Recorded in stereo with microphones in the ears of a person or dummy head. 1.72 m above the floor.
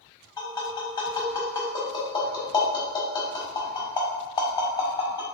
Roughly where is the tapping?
Centre.